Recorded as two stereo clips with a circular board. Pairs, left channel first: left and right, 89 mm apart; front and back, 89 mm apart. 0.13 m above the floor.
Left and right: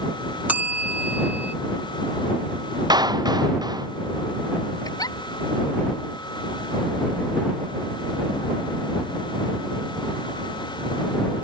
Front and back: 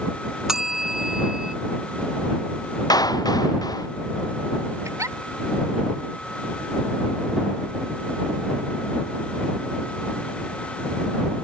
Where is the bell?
105° right.